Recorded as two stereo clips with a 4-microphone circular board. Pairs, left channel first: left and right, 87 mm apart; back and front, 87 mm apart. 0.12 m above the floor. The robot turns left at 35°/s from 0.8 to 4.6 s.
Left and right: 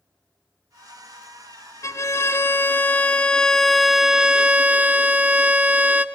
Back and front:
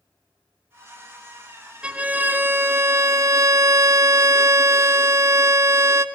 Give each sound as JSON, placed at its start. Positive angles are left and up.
{"t": 1.8, "sound": "a violin", "azimuth_deg": 70, "distance_m": 0.5}